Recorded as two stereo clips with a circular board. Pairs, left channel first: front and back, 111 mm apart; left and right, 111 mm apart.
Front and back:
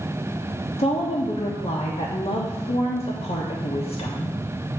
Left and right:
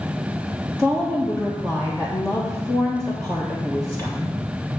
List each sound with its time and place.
0.8 s a woman speaking: 15° left, 1.2 m